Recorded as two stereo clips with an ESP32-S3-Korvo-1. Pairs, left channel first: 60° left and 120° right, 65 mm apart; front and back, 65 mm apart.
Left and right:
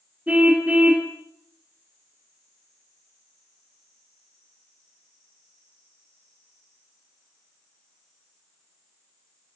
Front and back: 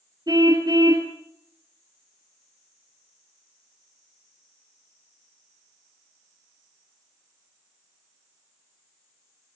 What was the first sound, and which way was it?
A car horn, 170° left.